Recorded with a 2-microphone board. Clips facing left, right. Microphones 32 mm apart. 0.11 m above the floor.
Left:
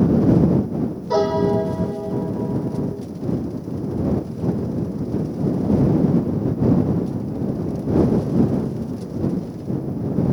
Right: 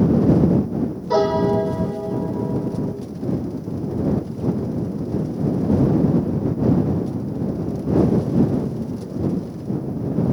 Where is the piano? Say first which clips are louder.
Right 1 dB; 10° right (ahead or behind).